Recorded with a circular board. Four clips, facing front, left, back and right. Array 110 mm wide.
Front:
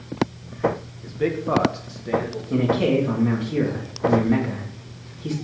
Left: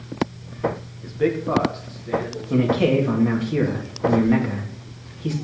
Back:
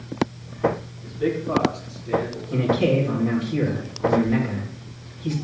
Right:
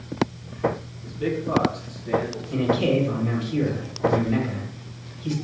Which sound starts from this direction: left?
A man speaking, at 1.0 s.